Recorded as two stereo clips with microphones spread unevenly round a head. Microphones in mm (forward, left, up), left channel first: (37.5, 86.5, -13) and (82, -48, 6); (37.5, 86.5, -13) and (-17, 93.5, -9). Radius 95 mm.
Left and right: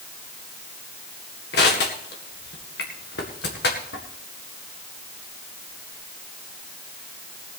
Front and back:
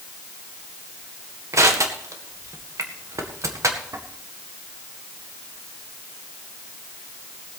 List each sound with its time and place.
1.5 s crushing: 145° left, 1.8 m